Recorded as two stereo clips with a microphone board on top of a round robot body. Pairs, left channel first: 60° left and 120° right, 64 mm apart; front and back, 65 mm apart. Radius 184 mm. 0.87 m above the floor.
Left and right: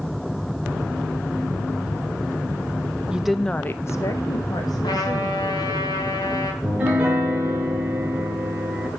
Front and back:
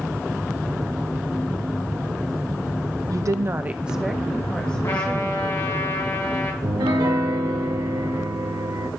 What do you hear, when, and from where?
3.1 s a woman speaking: 165° left, 0.9 m; by 5.8 s 65° left, 2.5 m
4.8 s a trumpet: 45° left, 1.9 m
6.6 s a piano: 170° left, 1.4 m